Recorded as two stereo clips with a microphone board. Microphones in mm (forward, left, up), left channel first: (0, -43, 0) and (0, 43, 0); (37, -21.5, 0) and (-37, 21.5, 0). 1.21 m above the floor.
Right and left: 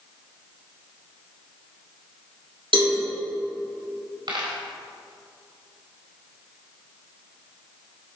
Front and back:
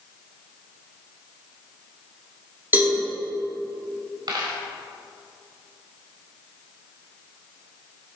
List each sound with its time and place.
2.7 s a cowbell: 85° left, 3.5 m
4.3 s a dropped coin: 115° left, 3 m